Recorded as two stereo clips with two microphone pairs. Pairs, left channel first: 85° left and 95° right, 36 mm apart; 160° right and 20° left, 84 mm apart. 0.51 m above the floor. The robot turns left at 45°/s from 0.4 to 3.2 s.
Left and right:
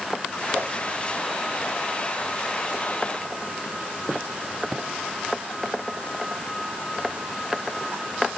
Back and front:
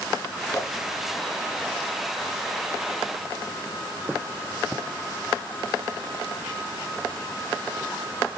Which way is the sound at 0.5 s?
100° right.